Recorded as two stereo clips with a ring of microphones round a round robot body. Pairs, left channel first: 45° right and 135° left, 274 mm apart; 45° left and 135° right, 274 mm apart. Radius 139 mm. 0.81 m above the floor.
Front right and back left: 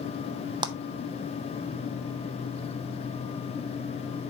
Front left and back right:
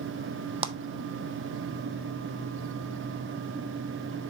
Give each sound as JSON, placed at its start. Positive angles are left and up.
{"t": 0.6, "sound": "a clap", "azimuth_deg": -175, "distance_m": 0.6}